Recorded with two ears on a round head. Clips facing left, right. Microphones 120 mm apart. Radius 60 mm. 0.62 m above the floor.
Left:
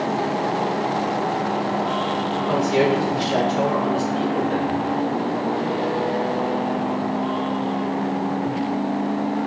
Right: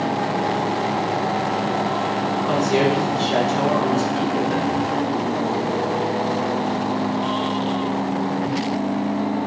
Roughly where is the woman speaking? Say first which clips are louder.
Even; right.